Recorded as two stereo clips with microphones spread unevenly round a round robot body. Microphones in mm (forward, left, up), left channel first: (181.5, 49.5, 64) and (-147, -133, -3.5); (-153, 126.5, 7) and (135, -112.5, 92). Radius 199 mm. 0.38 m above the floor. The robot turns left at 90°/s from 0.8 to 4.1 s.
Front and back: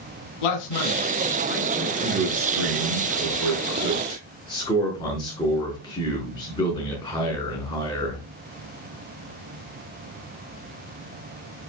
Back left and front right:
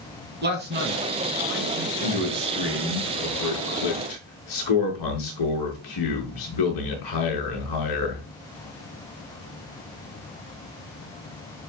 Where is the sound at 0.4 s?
30° left, 3.5 m; by 1.9 s 70° right, 3.5 m.